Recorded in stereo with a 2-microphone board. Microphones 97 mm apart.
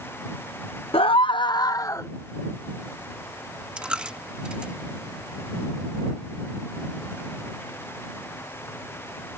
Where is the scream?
70° left (ahead or behind); by 2.1 s 30° left (ahead or behind).